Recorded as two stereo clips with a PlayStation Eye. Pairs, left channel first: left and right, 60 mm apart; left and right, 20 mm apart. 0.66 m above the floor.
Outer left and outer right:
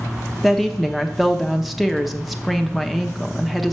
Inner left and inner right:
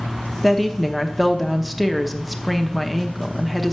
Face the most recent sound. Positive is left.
turn(degrees=0)  # may be behind; listen again after turning